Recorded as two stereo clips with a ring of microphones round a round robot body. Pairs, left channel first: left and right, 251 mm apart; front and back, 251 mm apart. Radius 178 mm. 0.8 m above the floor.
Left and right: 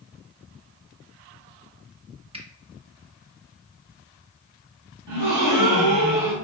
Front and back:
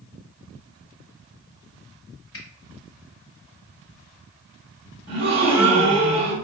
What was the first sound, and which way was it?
A finger snap, 25° right.